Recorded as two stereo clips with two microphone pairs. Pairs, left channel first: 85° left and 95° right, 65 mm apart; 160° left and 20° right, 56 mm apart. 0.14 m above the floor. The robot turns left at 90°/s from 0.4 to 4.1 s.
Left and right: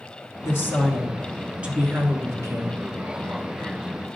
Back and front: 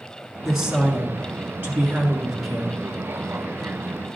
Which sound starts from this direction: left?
A woman speaking, at 0.4 s.